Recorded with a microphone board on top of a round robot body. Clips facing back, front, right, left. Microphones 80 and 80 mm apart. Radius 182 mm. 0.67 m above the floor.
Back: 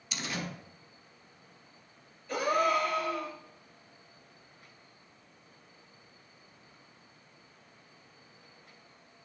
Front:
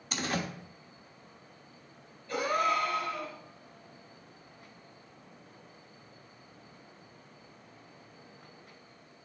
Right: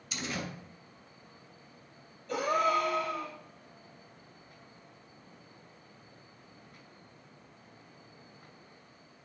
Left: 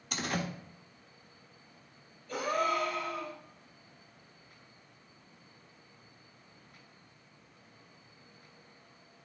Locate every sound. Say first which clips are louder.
0.1 s a door slam: front 4 dB, left 3 dB; 45° left, 1.3 m
2.3 s a gasp: back 1 dB, right 3 dB; 110° right, 4 m